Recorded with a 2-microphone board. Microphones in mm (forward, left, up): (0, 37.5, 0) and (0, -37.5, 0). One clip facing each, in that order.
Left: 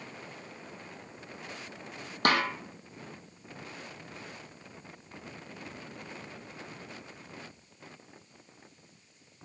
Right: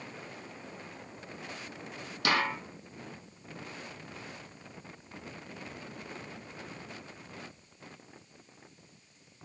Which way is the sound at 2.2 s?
45° left (ahead or behind).